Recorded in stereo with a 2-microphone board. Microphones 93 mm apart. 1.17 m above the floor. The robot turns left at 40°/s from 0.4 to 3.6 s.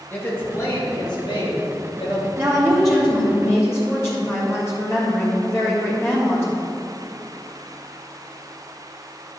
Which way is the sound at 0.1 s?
155° left.